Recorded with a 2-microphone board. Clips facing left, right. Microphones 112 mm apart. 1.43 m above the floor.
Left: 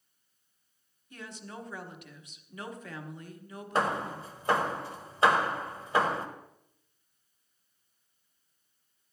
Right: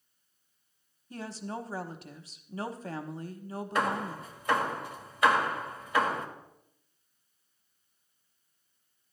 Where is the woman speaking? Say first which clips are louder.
Right 6 dB; 35° right (ahead or behind), 0.9 m.